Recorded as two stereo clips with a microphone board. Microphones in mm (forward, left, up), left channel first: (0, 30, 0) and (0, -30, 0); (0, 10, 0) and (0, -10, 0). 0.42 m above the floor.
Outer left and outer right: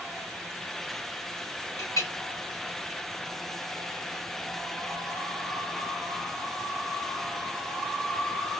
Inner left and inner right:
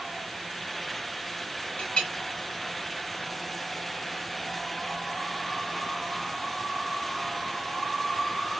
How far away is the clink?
About 2.5 m.